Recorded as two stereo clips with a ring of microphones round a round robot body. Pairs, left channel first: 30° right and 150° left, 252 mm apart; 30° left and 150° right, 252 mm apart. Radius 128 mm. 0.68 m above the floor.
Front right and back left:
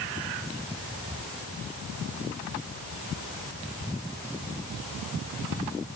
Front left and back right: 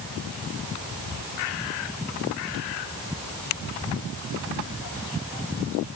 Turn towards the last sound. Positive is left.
No sound to turn to.